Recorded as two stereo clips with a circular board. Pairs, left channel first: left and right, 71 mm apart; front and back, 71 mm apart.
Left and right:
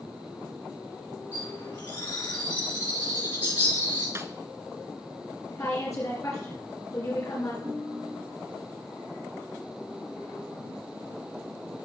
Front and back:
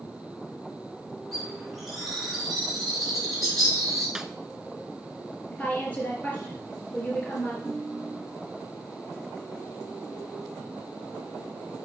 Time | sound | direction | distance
1.3 | a bird | 90° left | 3.5 m
4.2 | a snare drum | 105° right | 0.7 m
5.5 | a woman speaking | 65° left | 3 m
7.6 | a ringtone | 85° right | 6.5 m